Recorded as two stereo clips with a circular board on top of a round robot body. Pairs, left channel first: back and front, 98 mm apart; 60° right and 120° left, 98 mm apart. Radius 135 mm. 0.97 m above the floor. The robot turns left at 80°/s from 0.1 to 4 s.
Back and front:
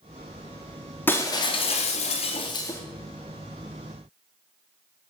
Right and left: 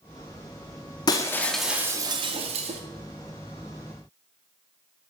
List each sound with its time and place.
1.1 s breaking glass: 110° right, 0.8 m; by 2.8 s 115° left, 0.8 m